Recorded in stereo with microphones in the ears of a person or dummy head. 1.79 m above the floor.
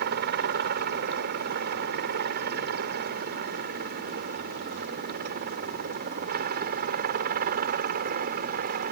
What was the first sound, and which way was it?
A helicopter, 55° right (ahead or behind).